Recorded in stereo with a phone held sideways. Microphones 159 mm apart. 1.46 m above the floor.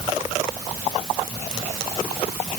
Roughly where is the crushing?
No crushing in this recording.